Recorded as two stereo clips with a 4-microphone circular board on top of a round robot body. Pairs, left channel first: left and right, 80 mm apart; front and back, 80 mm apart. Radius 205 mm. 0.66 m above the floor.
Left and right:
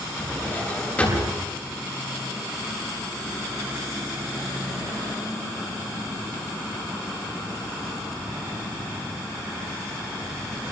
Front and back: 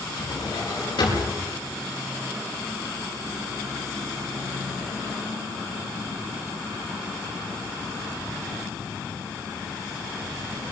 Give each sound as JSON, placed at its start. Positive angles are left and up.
{"t": 0.2, "sound": "a drawer", "azimuth_deg": 20, "distance_m": 8.5}